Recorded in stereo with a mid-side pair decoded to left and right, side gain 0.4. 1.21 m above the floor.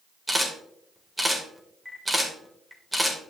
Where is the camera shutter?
10° right, 3 m.